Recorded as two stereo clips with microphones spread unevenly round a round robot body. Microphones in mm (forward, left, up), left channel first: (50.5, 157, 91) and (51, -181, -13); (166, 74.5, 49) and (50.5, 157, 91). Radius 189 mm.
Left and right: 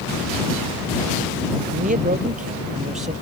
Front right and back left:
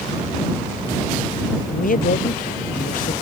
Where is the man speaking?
25° right; by 3.1 s 20° right.